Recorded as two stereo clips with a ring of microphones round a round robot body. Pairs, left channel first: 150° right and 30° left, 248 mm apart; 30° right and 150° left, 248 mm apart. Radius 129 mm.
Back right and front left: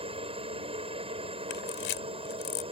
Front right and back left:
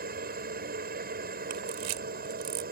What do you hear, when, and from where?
0.0 s a helicopter: 95° left
1.5 s a camera shutter: 165° left